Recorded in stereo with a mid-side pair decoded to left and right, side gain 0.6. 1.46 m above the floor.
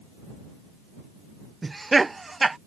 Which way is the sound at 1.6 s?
15° right.